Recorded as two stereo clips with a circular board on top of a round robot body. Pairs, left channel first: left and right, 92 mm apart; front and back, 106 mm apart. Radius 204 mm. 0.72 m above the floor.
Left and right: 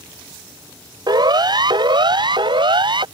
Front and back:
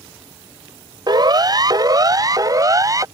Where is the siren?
130° right; by 3.0 s 120° right.